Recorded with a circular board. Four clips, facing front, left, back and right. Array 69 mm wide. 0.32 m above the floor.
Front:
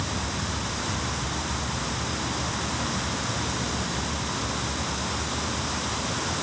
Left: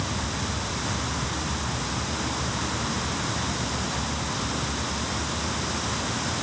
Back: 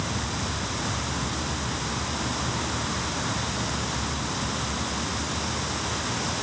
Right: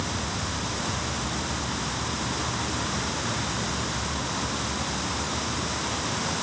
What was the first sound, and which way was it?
Only background noise.